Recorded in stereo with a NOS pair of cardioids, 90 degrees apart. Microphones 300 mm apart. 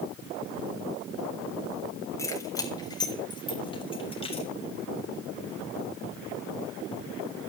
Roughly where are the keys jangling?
Ahead.